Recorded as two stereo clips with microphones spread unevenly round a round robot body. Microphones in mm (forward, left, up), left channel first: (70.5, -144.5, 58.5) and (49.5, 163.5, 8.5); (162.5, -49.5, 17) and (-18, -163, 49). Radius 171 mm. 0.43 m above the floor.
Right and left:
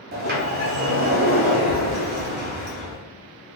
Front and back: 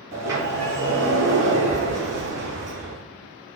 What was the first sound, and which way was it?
A sliding door, 155° left.